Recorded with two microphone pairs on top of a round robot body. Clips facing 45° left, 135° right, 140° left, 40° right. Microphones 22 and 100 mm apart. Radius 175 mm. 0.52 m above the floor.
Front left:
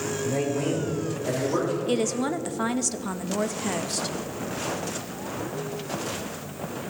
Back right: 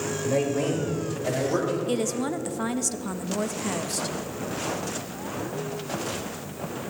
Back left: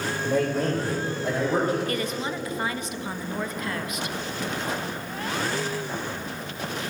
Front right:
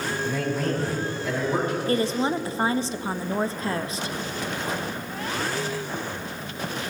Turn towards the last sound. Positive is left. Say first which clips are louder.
# front left 1 dB, front right 5 dB
turn(degrees=-15)